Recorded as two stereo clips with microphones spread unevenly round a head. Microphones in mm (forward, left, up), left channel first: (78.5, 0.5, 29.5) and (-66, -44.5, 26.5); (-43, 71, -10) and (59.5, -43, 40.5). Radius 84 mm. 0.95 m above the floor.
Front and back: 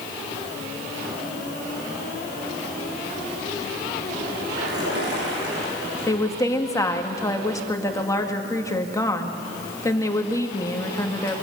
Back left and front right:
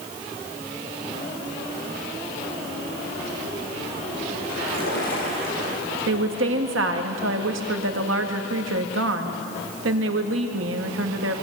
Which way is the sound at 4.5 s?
170° left.